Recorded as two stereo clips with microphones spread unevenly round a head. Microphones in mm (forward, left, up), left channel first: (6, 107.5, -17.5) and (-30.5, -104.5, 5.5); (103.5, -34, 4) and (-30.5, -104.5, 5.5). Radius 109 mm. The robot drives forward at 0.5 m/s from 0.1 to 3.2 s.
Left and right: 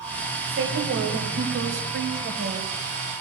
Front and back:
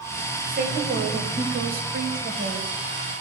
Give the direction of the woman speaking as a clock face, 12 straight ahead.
4 o'clock.